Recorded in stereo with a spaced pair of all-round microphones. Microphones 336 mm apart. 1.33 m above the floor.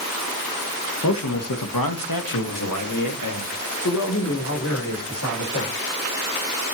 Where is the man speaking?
50° left (ahead or behind), 1.4 m; by 5.8 s 45° left (ahead or behind), 5.5 m.